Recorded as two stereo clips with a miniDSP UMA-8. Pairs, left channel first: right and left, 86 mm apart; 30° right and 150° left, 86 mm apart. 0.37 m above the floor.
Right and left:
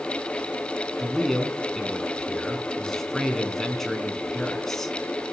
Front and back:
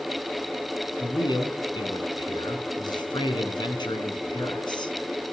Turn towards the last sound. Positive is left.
turn(degrees=-5)